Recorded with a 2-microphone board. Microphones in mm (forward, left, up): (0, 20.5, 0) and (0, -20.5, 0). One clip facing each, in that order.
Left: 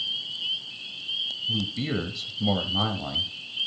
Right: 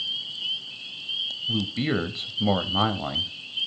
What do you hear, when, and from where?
1.5 s a man speaking: 30° right (ahead or behind), 1.0 m